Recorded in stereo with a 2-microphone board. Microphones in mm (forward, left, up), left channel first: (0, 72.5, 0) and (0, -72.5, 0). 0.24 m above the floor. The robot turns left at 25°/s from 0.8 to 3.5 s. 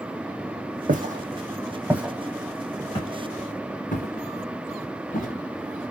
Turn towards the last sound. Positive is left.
turn(degrees=80)